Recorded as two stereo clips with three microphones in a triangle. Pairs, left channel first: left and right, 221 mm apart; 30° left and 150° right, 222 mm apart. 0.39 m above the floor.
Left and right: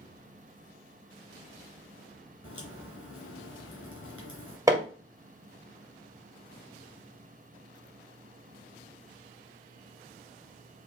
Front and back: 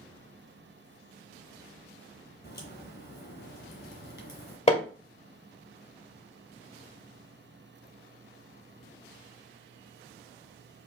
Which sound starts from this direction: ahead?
Hammering, at 4.7 s.